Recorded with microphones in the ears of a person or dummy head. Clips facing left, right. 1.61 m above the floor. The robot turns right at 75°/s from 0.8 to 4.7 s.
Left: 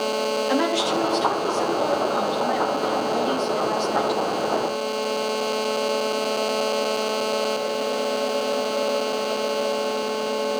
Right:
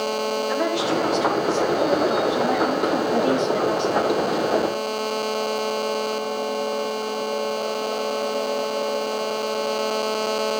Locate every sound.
0.5 s a woman speaking: 120° left, 3.5 m; by 4.2 s 15° left, 3.5 m